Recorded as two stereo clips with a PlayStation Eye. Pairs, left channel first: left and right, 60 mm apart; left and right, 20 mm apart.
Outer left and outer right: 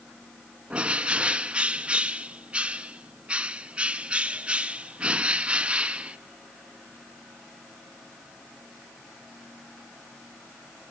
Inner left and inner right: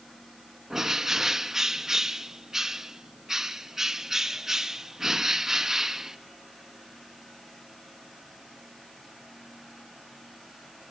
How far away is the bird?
About 0.7 m.